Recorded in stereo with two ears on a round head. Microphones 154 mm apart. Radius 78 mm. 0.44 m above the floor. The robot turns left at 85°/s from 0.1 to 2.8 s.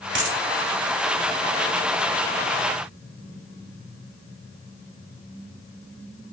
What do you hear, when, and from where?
0.1 s a dropped coin: 75° right (ahead or behind), 1.3 m